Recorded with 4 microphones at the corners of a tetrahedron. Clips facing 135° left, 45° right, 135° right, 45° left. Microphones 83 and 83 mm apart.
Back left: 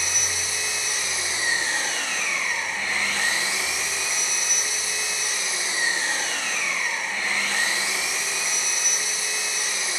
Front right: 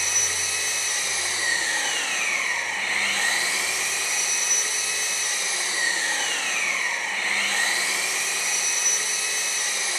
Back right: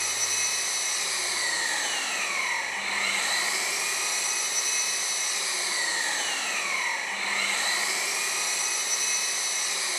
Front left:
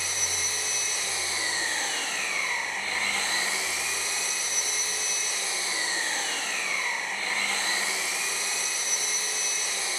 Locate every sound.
0.0 s an engine running: 145° right, 1.9 m